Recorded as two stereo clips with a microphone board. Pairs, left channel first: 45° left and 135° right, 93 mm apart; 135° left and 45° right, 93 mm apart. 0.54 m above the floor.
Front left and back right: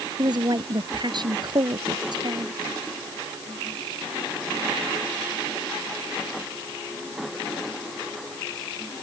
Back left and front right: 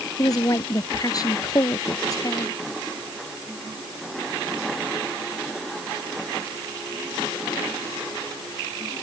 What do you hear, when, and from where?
0.2 s a woman speaking: 175° right